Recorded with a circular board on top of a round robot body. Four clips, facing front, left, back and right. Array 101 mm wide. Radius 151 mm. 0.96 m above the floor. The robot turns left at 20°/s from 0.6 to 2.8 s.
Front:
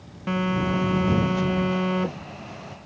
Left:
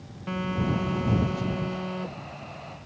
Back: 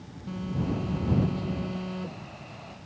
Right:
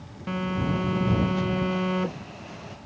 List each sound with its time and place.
0.3 s a phone buzzing: straight ahead; by 2.8 s 45° right